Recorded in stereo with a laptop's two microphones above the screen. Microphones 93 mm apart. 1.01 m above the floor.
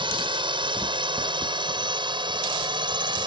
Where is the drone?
60° right (ahead or behind); by 3.3 s 55° right (ahead or behind).